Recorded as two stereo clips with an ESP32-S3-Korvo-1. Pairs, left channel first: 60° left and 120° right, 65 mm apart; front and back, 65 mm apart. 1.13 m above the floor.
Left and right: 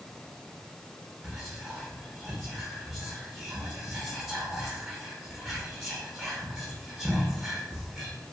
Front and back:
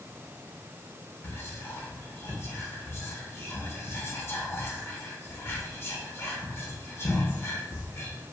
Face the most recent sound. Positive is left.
turn(degrees=-35)